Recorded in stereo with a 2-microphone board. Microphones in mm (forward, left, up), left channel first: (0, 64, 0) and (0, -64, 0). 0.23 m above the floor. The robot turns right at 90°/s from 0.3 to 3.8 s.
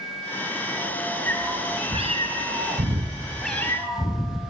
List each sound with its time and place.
1.3 s a cat meowing: 165° left, 2 m; by 4.4 s 30° left, 2 m